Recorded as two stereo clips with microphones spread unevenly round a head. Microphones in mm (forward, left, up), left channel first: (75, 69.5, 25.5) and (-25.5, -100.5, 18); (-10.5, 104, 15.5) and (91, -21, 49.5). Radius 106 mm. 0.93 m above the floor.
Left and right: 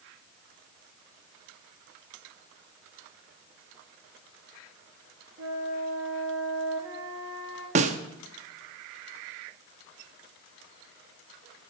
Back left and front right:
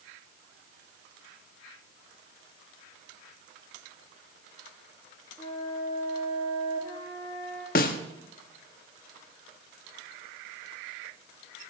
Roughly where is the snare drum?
Behind.